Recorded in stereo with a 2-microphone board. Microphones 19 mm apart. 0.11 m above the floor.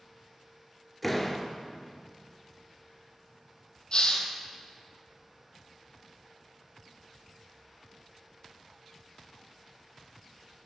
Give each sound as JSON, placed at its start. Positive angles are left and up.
{"t": 1.0, "sound": "a door slam", "side_deg": 5, "distance_m": 1.0}
{"t": 3.9, "sound": "a hiss", "side_deg": 55, "distance_m": 1.3}